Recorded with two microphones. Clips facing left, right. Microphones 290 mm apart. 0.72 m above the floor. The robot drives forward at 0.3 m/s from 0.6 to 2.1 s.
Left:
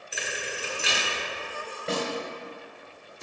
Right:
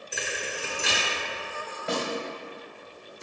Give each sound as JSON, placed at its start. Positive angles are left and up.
{"t": 0.1, "sound": "a thud", "side_deg": -55, "distance_m": 1.5}
{"t": 1.9, "sound": "a snare drum", "side_deg": 30, "distance_m": 1.6}